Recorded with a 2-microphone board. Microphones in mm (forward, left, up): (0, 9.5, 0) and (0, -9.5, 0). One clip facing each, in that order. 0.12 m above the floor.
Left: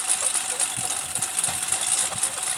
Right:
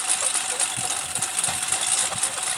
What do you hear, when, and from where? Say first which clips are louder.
0.0 s a lawn mower: right 2 dB; 10° right (ahead or behind)